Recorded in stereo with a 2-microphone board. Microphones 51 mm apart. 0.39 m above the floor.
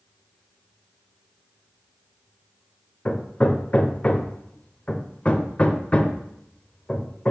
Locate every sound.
3.0 s hammering: 25° left (ahead or behind), 0.6 m